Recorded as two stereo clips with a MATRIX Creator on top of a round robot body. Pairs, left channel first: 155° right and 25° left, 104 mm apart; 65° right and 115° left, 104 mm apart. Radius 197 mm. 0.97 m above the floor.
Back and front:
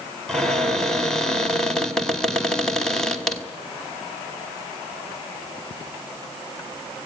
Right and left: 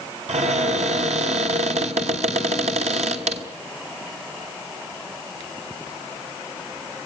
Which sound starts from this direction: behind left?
A cupboard door, at 0.3 s.